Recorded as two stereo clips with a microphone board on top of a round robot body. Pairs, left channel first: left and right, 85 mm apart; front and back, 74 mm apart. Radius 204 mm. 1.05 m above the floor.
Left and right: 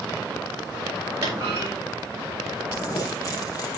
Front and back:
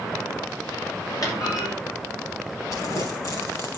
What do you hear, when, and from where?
1.2 s a clunk: 35° right, 7 m
2.7 s crumpling: 40° left, 5 m